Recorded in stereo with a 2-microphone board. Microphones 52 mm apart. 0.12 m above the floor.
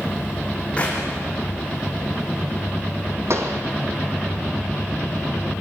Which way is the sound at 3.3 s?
55° right (ahead or behind).